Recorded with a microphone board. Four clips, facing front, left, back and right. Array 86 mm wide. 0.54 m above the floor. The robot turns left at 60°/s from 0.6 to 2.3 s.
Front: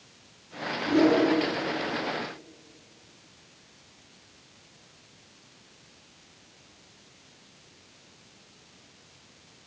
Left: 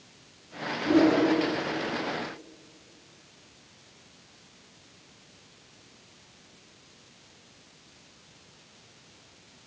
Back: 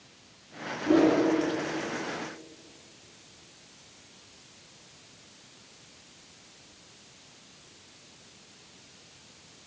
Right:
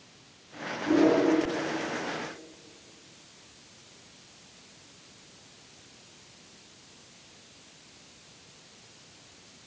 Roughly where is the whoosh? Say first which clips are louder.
Left 1 dB, even; behind.